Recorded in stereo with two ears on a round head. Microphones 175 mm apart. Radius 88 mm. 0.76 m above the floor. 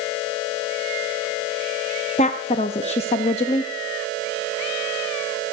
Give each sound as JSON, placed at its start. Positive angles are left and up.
{"t": 2.2, "sound": "a woman speaking", "side_deg": 30, "distance_m": 0.6}